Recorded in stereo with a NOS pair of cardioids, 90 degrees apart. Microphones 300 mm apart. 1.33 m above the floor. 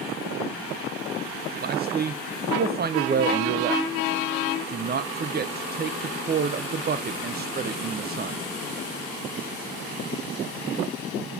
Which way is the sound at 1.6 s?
35° right.